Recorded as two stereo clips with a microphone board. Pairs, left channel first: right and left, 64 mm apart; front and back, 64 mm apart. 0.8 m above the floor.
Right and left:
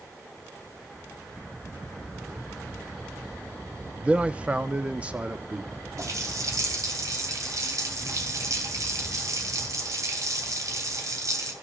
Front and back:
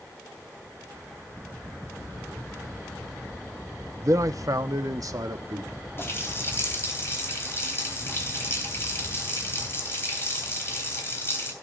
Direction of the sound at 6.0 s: 55° left.